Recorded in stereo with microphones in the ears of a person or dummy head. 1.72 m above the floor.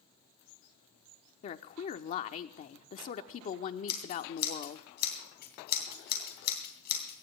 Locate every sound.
1.4 s a woman speaking: 45° left (ahead or behind), 0.9 m
3.9 s scissors: 55° left (ahead or behind), 2.5 m